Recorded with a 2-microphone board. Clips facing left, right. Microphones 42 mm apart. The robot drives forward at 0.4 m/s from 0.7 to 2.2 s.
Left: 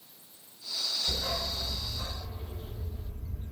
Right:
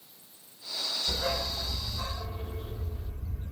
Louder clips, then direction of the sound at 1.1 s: Right 2 dB; 85° right.